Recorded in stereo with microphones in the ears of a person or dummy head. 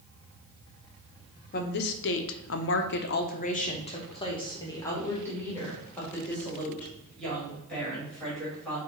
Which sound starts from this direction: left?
A woman speaking, at 1.5 s.